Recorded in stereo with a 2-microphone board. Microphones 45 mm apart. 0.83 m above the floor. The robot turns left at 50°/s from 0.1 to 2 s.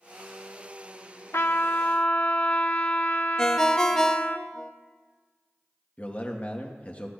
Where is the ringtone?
15° left (ahead or behind), 0.6 m.